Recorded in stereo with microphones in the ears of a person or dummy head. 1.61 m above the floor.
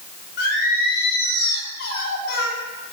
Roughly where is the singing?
Left.